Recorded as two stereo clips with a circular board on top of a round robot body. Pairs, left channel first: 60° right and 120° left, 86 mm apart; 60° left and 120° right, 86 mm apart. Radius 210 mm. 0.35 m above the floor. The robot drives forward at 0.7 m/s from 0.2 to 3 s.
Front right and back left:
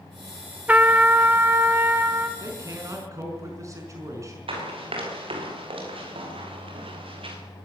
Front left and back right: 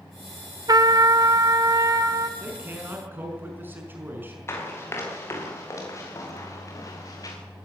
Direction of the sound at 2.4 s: 175° left.